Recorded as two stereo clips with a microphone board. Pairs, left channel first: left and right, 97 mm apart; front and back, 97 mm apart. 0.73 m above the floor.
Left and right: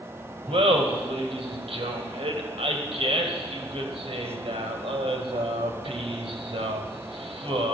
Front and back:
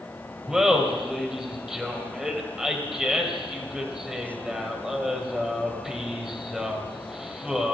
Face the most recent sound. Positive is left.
turn(degrees=-95)